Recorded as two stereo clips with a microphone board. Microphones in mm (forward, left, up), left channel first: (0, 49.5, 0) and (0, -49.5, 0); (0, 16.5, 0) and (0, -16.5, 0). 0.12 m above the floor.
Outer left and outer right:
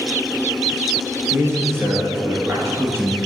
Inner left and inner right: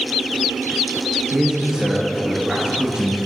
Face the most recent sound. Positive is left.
turn(degrees=-25)  # may be behind; listen again after turning